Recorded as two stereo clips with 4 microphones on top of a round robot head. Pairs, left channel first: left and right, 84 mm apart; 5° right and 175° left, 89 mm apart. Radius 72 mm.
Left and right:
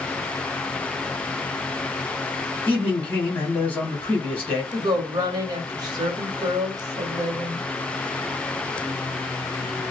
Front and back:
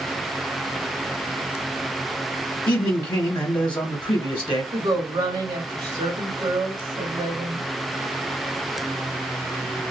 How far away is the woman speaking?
About 1.2 m.